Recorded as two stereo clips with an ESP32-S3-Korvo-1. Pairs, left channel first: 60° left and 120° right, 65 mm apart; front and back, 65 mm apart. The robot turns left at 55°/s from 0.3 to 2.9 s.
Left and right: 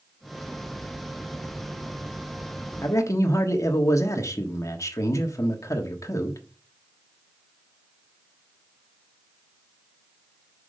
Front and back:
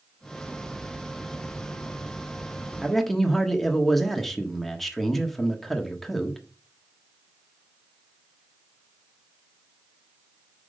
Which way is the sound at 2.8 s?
95° left.